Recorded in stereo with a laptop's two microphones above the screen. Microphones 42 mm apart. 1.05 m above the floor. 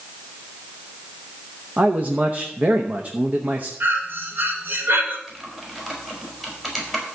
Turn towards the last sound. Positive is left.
turn(degrees=-10)  # may be behind; listen again after turning